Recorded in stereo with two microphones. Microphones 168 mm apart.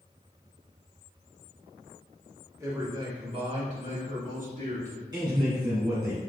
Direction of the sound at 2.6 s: 15° right (ahead or behind).